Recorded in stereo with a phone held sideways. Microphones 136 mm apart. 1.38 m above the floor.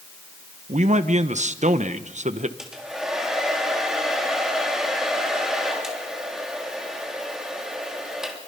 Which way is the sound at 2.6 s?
5° right (ahead or behind).